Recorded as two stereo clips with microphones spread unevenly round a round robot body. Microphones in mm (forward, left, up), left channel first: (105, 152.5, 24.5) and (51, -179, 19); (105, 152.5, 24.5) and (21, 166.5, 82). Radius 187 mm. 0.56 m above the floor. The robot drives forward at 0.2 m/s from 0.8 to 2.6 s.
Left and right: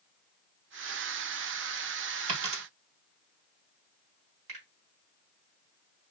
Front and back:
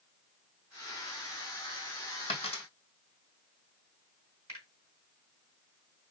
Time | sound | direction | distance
2.3 | a dropped coin | 105° right | 1.2 m
4.5 | a finger snap | 135° right | 3.5 m